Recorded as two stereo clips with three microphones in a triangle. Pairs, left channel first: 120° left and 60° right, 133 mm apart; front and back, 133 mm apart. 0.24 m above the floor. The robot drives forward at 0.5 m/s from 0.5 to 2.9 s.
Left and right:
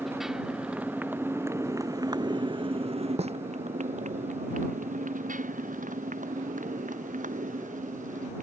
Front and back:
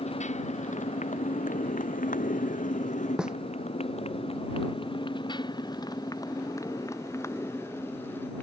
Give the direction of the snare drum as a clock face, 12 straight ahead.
3 o'clock.